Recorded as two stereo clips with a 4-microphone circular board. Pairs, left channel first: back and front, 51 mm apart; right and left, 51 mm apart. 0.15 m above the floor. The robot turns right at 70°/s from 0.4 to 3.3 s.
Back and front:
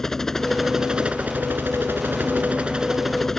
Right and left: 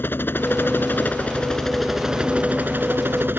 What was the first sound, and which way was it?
A helicopter, 105° right.